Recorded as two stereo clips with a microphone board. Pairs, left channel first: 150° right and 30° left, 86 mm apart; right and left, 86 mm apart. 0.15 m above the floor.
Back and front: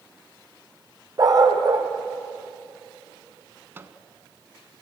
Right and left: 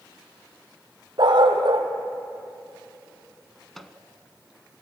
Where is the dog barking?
65° left, 2 m.